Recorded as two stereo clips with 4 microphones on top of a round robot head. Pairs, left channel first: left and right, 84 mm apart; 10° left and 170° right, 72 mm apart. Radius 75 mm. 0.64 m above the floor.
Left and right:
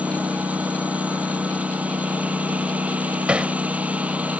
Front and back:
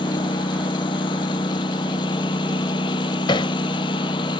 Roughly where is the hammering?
Ahead.